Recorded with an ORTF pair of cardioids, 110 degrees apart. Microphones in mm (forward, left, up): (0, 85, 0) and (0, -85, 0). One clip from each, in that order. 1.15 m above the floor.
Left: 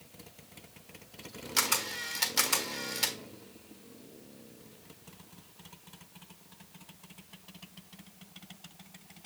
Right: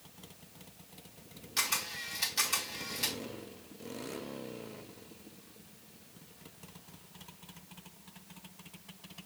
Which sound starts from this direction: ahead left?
A camera shutter, at 1.6 s.